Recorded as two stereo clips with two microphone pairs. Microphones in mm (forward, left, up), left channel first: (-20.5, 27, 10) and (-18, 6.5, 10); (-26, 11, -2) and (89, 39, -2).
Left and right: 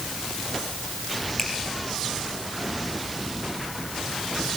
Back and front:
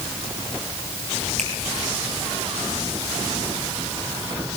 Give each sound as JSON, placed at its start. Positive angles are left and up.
{"t": 1.4, "sound": "a finger snap", "azimuth_deg": 20, "distance_m": 7.5}